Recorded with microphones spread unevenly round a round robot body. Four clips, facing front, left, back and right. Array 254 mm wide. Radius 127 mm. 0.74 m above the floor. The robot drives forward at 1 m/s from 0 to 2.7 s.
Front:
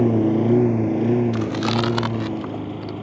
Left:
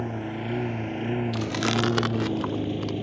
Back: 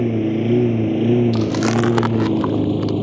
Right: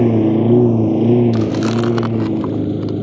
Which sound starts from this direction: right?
A lawn mower, at 0.0 s.